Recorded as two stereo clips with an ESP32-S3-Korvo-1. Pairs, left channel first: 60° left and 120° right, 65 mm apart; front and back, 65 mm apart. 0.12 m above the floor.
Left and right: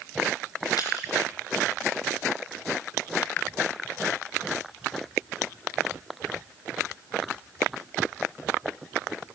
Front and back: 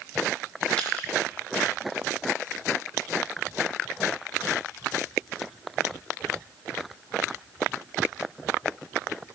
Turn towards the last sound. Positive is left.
turn(degrees=70)